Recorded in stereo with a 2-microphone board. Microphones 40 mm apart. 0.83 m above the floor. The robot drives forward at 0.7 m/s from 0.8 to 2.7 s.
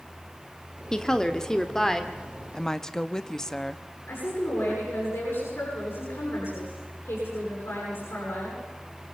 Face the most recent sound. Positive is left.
turn(degrees=70)  # may be behind; listen again after turning